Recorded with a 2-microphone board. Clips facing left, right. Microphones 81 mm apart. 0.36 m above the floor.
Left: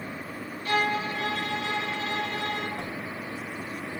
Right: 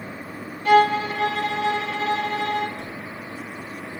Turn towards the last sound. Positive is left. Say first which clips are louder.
# even
turn(degrees=65)  # may be behind; listen again after turning